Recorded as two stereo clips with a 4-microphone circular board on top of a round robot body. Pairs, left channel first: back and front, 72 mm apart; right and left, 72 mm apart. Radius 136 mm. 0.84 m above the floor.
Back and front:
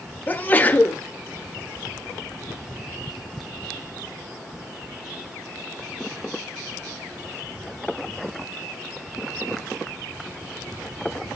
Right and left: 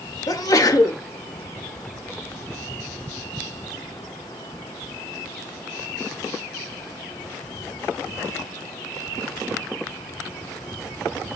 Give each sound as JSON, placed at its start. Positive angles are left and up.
{"t": 0.3, "sound": "a sneeze", "azimuth_deg": -115, "distance_m": 1.7}